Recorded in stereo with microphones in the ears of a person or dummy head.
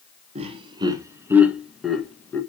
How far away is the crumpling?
I don't hear crumpling.